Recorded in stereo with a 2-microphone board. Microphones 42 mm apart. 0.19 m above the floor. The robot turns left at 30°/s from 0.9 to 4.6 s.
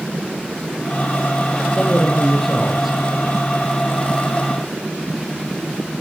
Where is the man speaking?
25° left, 4.5 m; by 3.0 s 10° right, 4.5 m.